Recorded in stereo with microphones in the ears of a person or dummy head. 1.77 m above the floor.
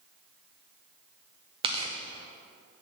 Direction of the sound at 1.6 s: 35° right (ahead or behind).